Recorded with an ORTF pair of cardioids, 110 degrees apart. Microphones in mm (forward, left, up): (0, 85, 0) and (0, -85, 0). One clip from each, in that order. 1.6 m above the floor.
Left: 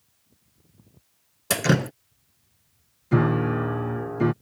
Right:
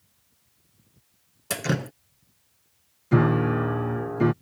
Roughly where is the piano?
Ahead.